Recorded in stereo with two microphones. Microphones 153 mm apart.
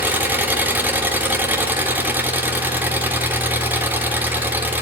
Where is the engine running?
10° right (ahead or behind), 3 m.